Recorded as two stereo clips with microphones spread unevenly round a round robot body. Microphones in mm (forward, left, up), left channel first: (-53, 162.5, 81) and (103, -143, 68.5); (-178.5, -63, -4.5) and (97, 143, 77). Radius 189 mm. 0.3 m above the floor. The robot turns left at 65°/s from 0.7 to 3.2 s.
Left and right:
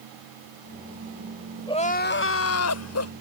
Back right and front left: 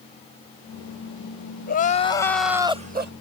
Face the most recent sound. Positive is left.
turn(degrees=90)